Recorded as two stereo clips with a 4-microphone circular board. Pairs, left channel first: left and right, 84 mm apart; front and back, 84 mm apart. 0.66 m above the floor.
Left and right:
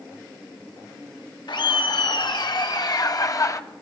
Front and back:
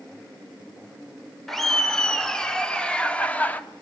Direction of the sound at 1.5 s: 85° left.